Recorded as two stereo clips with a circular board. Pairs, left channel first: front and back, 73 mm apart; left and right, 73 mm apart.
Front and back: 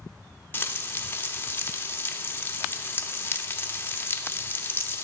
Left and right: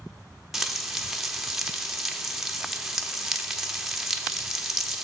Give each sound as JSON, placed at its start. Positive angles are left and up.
{"t": 0.5, "sound": "frying", "azimuth_deg": -5, "distance_m": 0.8}